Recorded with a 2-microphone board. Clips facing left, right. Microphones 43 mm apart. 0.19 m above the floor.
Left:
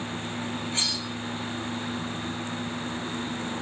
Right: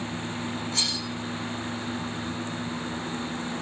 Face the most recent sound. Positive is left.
turn(degrees=30)  # may be behind; listen again after turning